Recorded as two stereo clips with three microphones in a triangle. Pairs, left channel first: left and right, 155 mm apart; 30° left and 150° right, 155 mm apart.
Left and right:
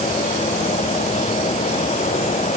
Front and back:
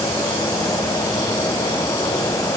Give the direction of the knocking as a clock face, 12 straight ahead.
No knocking in this recording.